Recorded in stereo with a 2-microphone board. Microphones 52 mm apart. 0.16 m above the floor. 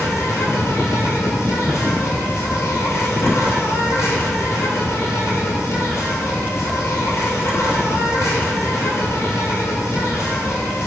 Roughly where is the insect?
Left.